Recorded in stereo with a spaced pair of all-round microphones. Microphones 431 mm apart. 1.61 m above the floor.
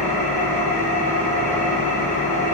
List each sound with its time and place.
0.0 s an engine running: 20° left (ahead or behind), 1.1 m